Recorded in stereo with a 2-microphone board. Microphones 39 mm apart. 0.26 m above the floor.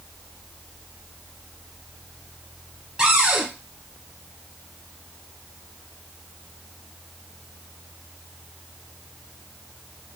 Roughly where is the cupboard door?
Centre.